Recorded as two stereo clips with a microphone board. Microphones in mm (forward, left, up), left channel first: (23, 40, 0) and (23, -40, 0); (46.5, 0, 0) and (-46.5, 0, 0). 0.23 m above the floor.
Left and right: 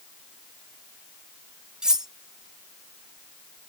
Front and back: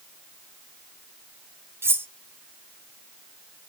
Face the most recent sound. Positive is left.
turn(degrees=-160)